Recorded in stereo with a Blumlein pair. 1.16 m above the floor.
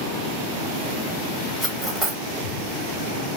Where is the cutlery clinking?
10° right, 0.7 m.